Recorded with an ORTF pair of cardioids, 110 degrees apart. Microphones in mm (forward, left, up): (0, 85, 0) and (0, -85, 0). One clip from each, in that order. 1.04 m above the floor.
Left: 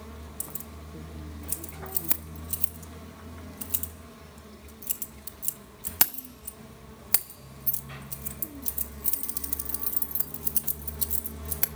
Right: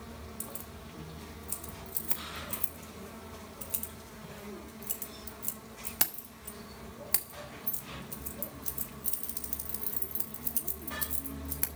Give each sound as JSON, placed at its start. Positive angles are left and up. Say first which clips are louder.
{"t": 0.4, "sound": "keys jangling", "louder": "left 2 dB", "azimuth_deg": 25, "distance_m": 1.1}